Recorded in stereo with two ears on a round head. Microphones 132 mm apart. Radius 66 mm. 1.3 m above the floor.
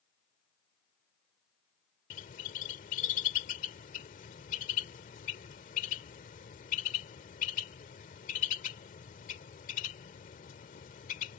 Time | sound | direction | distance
2.1 | a bird | 55° left (ahead or behind) | ?